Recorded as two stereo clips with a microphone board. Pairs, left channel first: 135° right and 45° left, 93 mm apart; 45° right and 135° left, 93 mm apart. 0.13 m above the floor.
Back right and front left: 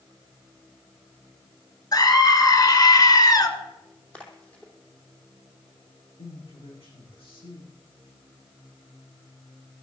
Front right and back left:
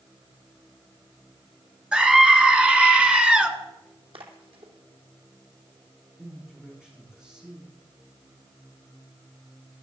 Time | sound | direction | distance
1.9 | a scream | 150° right | 2 m
4.1 | a splash | 145° left | 3 m
6.2 | a man speaking | 145° right | 8 m